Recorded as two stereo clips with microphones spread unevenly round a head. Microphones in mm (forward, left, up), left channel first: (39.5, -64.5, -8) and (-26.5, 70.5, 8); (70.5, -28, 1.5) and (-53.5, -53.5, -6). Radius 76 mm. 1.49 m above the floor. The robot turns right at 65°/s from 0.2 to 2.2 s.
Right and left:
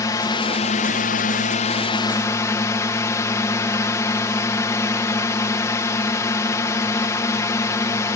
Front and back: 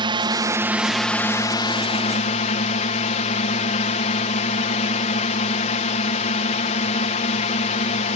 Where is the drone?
130° right; by 8.2 s straight ahead.